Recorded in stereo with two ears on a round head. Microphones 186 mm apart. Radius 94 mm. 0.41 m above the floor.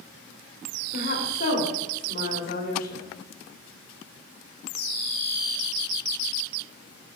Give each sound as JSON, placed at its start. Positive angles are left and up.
{"t": 0.9, "sound": "a woman speaking", "side_deg": 45, "distance_m": 1.8}